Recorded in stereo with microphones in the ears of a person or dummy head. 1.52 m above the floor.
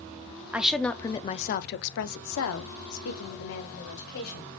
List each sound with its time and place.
0.5 s a woman speaking: 10° right (ahead or behind), 0.6 m; by 4.6 s 75° left (ahead or behind), 1.9 m